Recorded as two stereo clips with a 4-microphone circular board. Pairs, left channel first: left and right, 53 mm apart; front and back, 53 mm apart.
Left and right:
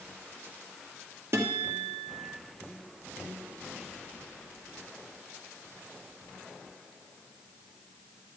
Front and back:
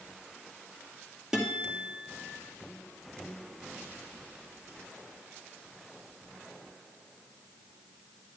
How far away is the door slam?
I don't hear a door slam.